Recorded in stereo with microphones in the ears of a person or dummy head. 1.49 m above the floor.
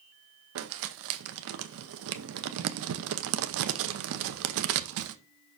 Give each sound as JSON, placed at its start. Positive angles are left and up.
{"t": 0.6, "sound": "crumpling", "side_deg": -70, "distance_m": 0.7}